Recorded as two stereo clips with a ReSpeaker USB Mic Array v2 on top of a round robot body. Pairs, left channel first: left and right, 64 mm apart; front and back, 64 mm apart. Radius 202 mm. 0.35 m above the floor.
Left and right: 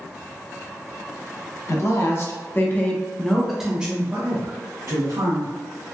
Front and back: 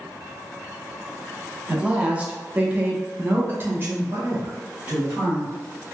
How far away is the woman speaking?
About 1.2 m.